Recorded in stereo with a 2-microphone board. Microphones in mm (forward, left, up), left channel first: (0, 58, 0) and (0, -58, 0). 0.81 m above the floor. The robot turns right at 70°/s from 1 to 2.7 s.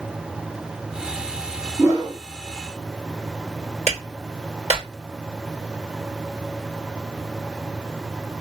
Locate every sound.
1.8 s a whoosh: 20° right (ahead or behind), 1.1 m; by 2.2 s 45° right (ahead or behind), 1.1 m
3.9 s a clap: 70° right (ahead or behind), 2.5 m